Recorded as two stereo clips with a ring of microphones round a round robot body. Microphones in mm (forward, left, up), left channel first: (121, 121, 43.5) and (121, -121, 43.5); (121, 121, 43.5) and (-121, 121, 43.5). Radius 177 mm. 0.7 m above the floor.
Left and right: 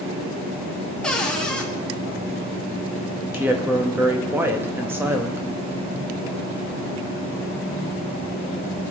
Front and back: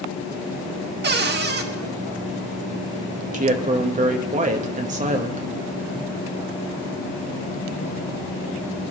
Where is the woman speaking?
165° right, 1.1 m.